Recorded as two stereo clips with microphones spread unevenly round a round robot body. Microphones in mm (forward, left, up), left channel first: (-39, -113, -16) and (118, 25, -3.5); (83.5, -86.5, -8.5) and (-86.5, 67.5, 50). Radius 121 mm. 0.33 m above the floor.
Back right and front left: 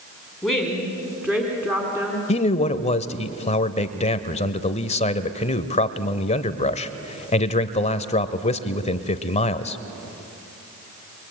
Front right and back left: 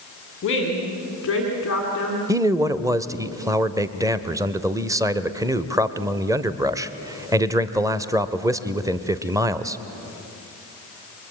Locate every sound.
0.4 s a woman speaking: 50° right, 3.5 m; by 2.2 s 35° right, 4 m
2.3 s a man speaking: 135° right, 0.9 m